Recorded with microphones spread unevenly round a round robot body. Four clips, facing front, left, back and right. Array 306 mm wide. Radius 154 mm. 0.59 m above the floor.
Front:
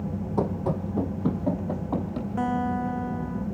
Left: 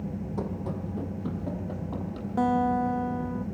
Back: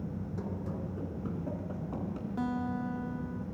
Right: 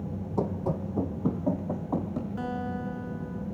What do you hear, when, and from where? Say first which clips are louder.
0.4 s running footsteps: right 6 dB, front 13 dB; 20° right, 2 m; by 2.3 s 35° right, 4.5 m
2.4 s a guitar: left 14 dB, front 8 dB; 70° left, 1.3 m